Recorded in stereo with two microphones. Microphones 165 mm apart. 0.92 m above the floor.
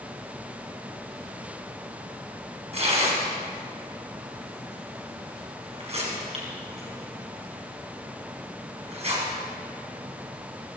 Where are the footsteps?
No footsteps in this recording.